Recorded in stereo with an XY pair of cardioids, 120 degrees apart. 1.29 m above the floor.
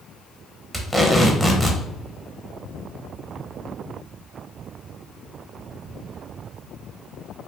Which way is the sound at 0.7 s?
Straight ahead.